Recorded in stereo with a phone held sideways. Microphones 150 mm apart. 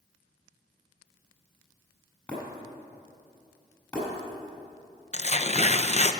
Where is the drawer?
I don't hear a drawer.